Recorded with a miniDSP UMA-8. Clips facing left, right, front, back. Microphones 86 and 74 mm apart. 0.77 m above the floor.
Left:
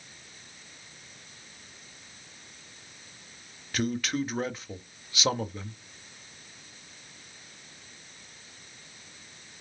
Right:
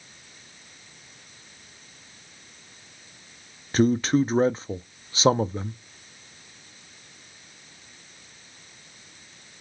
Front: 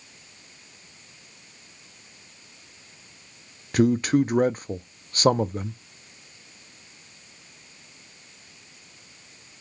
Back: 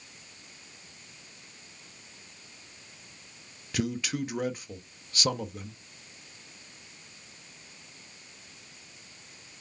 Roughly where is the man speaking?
Ahead right.